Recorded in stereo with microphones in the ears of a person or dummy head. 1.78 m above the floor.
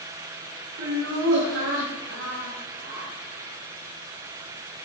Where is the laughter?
80° right, 4 m; by 3.1 s 85° right, 3.5 m.